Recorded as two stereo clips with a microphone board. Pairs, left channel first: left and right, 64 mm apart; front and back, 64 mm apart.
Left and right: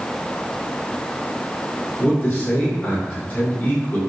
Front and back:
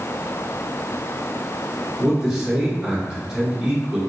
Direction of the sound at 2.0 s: 110° left.